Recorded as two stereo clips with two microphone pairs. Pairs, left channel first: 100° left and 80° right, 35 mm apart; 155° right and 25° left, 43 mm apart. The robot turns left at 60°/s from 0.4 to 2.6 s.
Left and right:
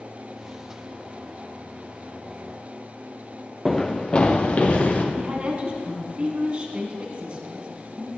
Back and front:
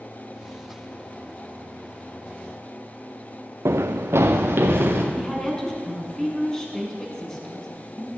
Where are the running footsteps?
15° left, 0.7 m; by 5.0 s 55° left, 1.9 m.